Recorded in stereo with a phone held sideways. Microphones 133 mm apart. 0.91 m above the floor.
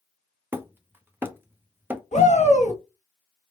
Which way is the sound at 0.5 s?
15° right (ahead or behind).